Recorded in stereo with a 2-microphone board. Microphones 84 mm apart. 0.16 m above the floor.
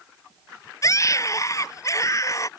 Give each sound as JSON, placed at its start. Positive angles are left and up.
{"t": 0.8, "sound": "a scream", "side_deg": 40}